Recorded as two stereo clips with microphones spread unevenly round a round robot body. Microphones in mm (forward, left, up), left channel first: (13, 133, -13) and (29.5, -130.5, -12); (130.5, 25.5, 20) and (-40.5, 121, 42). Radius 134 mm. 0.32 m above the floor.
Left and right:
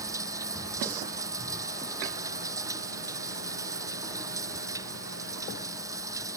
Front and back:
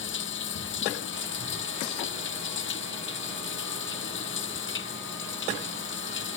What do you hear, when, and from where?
0.0 s running water: 10° right